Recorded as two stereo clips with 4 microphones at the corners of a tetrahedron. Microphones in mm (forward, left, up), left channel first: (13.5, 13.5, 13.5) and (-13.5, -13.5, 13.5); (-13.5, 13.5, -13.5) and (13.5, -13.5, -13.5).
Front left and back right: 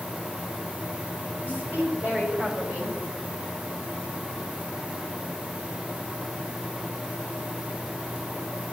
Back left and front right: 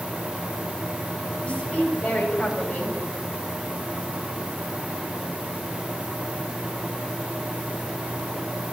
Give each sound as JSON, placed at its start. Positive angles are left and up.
{"t": 1.4, "sound": "a woman speaking", "azimuth_deg": -170, "distance_m": 4.0}